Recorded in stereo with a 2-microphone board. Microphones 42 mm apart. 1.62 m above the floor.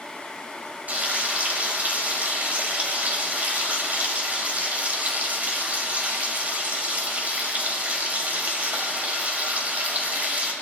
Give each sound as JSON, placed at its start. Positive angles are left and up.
{"t": 0.9, "sound": "frying", "side_deg": -40, "distance_m": 2.0}